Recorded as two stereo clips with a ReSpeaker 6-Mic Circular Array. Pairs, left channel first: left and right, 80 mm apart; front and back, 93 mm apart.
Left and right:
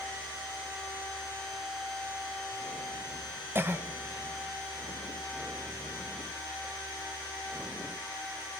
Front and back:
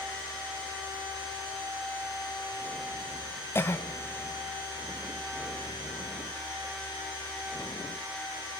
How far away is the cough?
About 1.3 m.